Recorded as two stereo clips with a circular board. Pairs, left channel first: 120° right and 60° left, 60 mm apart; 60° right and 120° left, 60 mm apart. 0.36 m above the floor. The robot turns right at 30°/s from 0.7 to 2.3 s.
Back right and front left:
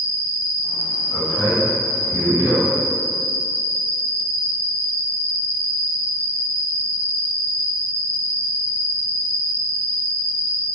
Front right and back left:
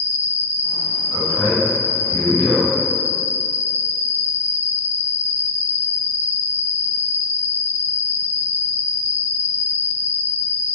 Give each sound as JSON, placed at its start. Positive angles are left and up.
{"t": 0.0, "sound": "an insect", "azimuth_deg": 120, "distance_m": 1.9}
{"t": 1.1, "sound": "a man speaking", "azimuth_deg": 30, "distance_m": 1.6}